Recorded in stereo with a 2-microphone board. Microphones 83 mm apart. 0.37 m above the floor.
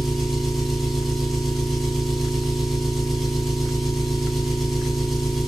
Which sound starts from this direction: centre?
An engine running, at 0.0 s.